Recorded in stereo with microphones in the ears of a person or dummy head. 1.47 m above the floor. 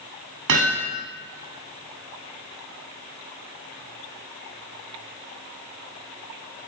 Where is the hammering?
70° right (ahead or behind), 9 m.